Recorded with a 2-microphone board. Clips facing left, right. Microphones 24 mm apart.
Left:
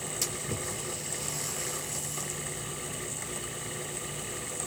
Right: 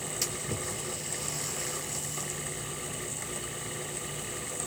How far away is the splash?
About 3.5 m.